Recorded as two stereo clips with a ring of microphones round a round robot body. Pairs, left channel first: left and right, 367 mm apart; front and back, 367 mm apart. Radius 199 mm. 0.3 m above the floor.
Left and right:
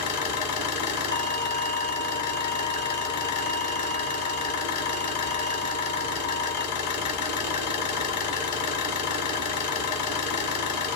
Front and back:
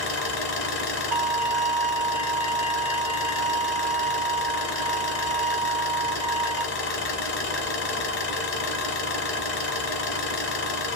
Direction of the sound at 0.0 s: 50° left.